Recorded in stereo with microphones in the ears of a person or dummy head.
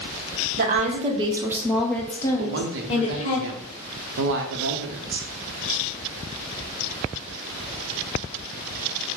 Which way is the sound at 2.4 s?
65° right (ahead or behind).